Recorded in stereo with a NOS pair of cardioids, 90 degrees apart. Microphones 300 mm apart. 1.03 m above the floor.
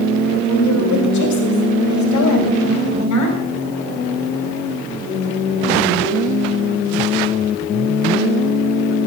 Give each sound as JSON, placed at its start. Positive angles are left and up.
{"t": 0.3, "sound": "a woman speaking", "azimuth_deg": 65, "distance_m": 3.5}